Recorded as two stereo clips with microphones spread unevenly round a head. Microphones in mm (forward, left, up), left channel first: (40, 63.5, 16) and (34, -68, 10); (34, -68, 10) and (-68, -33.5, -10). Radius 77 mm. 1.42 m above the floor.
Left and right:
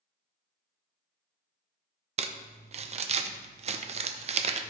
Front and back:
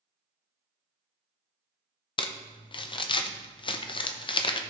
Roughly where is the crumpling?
Ahead right.